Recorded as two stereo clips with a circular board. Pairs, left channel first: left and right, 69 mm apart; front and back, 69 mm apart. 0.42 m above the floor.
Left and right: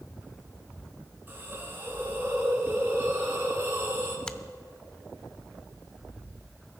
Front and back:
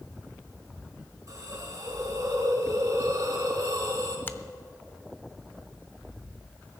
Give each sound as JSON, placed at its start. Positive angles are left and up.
{"t": 1.3, "sound": "a hiss", "azimuth_deg": -150, "distance_m": 3.0}
{"t": 4.3, "sound": "a finger snap", "azimuth_deg": 25, "distance_m": 0.6}